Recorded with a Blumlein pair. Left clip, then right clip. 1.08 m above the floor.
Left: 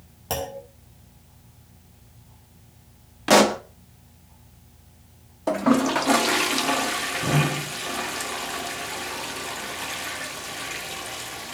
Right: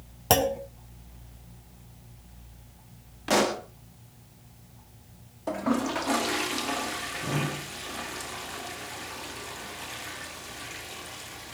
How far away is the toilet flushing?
About 1.3 m.